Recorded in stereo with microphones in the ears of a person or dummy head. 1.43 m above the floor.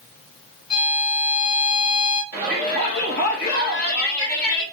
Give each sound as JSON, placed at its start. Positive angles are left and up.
{"t": 0.7, "sound": "a violin", "side_deg": 20, "distance_m": 2.5}
{"t": 2.3, "sound": "a shout", "side_deg": 50, "distance_m": 1.9}